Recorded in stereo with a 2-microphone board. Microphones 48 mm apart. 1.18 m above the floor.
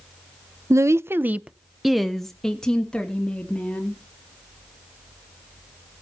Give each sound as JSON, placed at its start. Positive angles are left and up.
{"t": 0.7, "sound": "a woman speaking", "side_deg": -85, "distance_m": 0.5}